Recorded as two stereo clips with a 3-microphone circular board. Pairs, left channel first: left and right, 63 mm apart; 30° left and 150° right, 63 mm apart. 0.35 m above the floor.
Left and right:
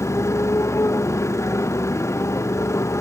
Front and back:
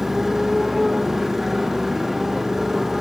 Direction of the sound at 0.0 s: 125° left.